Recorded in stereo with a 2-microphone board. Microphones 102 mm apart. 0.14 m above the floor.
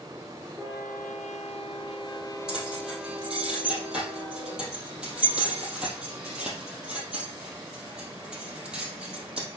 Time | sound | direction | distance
2.5 | keys jangling | 10° right (ahead or behind) | 3 m